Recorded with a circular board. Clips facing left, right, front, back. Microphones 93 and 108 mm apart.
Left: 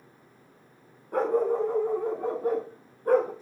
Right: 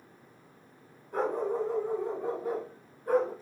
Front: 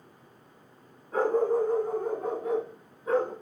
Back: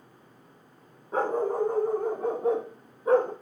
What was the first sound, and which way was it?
A dog barking, 115° left.